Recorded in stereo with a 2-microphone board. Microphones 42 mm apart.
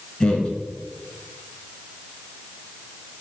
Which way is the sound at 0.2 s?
20° left (ahead or behind).